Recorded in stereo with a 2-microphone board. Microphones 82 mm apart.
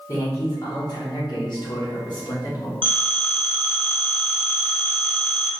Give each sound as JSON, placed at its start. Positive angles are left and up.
{"t": 0.1, "sound": "a man speaking", "side_deg": 40, "distance_m": 1.3}
{"t": 2.8, "sound": "a phone ringing", "side_deg": 15, "distance_m": 1.3}